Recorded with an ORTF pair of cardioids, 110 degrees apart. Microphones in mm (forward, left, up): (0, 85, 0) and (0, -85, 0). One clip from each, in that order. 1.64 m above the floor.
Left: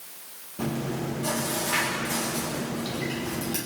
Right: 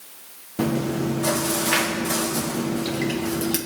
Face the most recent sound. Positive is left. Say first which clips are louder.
# right 7 dB
turn(degrees=-60)